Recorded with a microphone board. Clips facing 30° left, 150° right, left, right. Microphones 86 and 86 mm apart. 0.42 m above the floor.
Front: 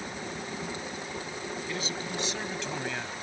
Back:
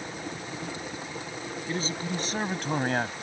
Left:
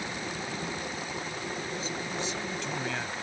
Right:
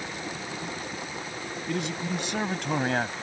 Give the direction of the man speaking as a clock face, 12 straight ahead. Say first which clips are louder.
Back 6 dB, right 5 dB; 3 o'clock.